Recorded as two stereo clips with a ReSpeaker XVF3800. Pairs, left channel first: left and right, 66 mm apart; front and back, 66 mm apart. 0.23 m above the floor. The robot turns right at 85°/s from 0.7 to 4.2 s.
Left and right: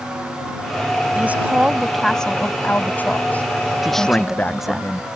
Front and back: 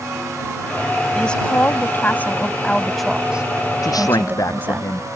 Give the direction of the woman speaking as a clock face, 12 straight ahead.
2 o'clock.